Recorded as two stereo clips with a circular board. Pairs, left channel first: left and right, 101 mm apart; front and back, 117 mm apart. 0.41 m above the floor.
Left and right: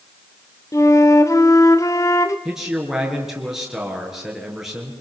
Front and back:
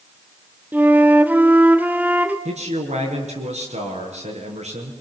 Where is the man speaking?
175° right, 6 m.